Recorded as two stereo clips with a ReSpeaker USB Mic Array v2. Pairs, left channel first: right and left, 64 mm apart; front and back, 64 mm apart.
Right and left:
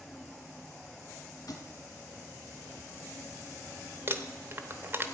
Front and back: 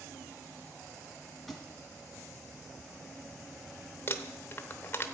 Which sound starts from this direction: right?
A thud, at 1.5 s.